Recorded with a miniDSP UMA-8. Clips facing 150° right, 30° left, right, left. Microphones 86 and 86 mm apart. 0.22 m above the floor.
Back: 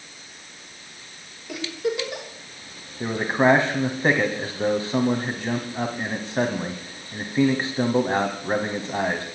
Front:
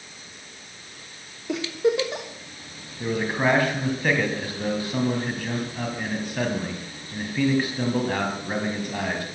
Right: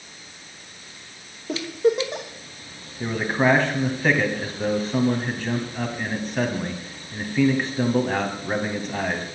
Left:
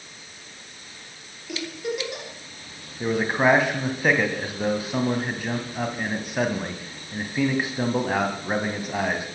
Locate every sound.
1.5 s a giggle: 35° right, 3 m
3.0 s a man speaking: 165° left, 1.7 m